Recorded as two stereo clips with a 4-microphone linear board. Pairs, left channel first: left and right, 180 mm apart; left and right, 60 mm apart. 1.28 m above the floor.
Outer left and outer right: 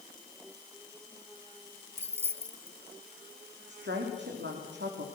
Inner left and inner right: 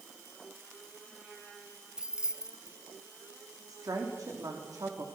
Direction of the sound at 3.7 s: 80° right.